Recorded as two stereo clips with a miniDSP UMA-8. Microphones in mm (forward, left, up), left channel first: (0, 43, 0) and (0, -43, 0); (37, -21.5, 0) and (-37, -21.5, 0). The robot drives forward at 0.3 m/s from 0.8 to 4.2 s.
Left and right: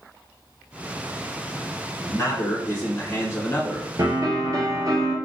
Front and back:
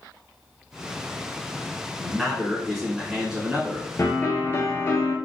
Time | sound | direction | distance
2.0 | a man speaking | 80° left | 1.4 m
4.0 | a piano | 50° right | 1.2 m